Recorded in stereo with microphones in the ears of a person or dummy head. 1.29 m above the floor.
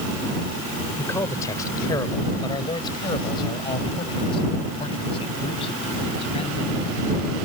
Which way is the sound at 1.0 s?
10° left (ahead or behind).